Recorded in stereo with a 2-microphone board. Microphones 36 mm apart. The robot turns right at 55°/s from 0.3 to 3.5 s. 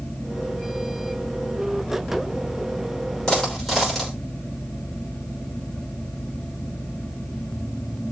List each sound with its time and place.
3.3 s a dropped coin: 25° left (ahead or behind), 5.5 m; by 4.2 s 10° left (ahead or behind), 5.5 m